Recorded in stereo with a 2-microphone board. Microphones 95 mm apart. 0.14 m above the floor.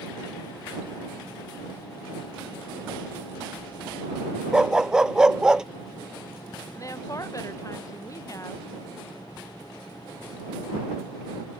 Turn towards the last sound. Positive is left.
turn(degrees=35)  # may be behind; listen again after turning